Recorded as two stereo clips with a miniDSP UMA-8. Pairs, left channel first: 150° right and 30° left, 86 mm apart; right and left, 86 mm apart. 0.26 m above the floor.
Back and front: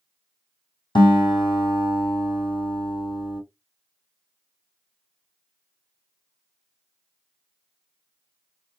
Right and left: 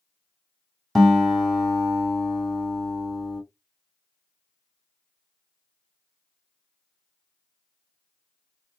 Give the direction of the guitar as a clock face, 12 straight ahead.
6 o'clock.